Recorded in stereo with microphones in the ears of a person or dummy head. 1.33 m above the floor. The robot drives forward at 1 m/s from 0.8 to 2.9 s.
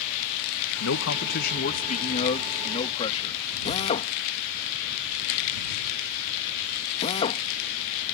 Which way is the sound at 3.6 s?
35° left (ahead or behind).